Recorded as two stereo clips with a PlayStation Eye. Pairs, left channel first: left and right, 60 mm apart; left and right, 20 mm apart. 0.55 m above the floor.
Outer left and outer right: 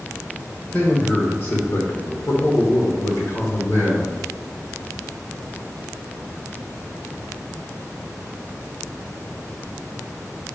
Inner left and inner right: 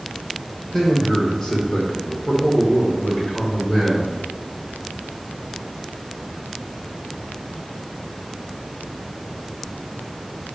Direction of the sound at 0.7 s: 30° left (ahead or behind).